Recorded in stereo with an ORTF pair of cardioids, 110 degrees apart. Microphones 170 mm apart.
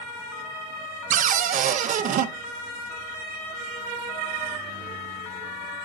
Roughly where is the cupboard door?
Ahead right.